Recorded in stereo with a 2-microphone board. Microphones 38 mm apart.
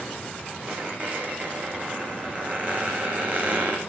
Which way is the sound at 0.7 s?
35° right (ahead or behind).